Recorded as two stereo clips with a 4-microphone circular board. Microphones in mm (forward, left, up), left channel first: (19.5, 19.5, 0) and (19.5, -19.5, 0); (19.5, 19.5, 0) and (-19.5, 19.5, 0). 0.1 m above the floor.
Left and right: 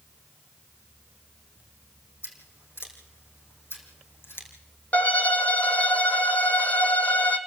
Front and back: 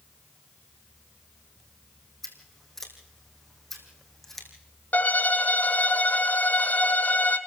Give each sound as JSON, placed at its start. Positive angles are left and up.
{"t": 2.2, "sound": "scissors", "azimuth_deg": 85, "distance_m": 3.5}
{"t": 4.9, "sound": "a violin", "azimuth_deg": 40, "distance_m": 1.1}